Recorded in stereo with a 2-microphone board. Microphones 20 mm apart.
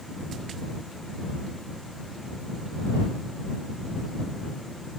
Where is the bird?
No bird in this recording.